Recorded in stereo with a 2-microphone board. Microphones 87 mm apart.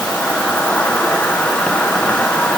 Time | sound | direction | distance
0.0 | an insect | 15° left (ahead or behind) | 1.2 m